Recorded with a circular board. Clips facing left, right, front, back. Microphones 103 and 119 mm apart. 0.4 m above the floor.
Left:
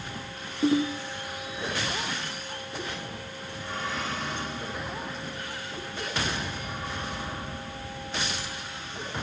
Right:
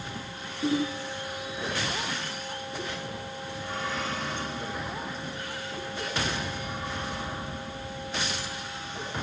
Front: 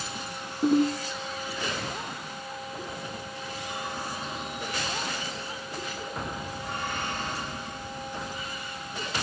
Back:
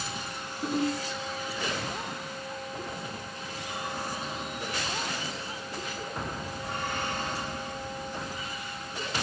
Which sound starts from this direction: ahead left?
A ringtone, at 0.6 s.